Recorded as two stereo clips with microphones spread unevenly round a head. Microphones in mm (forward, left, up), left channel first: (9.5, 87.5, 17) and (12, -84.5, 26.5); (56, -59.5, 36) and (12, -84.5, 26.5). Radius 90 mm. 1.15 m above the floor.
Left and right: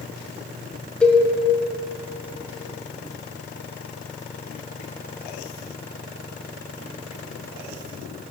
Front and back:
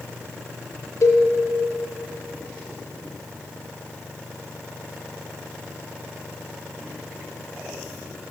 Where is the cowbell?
5° left, 0.8 m.